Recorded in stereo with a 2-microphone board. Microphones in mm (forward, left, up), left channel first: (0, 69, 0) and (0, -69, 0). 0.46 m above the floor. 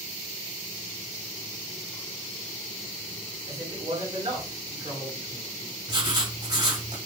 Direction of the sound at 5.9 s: 35° right (ahead or behind).